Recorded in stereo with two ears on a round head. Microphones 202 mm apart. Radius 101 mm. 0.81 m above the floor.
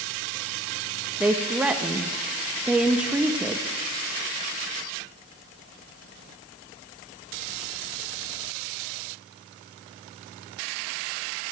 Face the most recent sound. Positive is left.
turn(degrees=-5)  # may be behind; listen again after turning